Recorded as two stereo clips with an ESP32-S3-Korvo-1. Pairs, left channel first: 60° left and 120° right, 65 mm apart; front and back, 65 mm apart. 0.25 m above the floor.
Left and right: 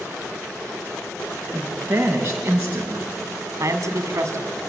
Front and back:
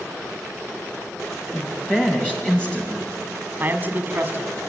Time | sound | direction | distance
1.5 | a woman speaking | 75° right | 2 m
3.6 | a man speaking | 130° right | 1.8 m